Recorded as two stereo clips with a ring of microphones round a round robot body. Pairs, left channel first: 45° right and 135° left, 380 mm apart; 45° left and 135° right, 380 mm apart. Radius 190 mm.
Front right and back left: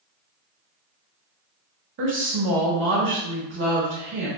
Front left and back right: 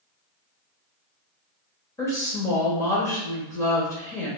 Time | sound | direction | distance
2.0 | a woman speaking | 120° left | 0.9 m